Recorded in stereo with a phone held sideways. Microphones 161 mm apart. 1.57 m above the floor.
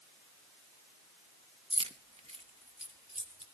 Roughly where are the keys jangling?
Right.